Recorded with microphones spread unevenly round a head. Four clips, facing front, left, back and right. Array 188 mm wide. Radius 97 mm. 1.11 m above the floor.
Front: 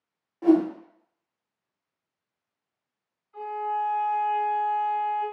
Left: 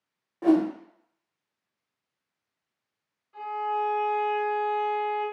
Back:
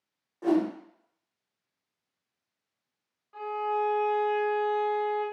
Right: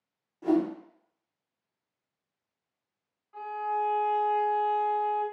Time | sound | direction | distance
0.4 | a whoosh | 85° left | 0.6 m
3.3 | a violin | 175° right | 1.1 m